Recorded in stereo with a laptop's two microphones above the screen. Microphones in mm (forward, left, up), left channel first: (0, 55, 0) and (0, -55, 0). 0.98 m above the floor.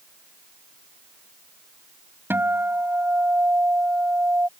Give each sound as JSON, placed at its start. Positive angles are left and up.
{"t": 2.3, "sound": "a guitar", "side_deg": -20}